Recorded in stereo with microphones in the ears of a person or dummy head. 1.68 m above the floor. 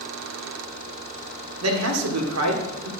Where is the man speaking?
85° right, 1.7 m.